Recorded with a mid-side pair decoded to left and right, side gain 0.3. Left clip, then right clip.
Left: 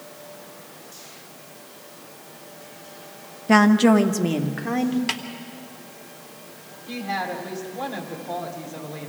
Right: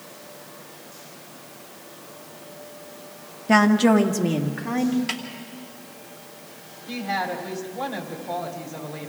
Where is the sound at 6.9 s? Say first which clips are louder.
Right 1 dB; straight ahead, 4 m.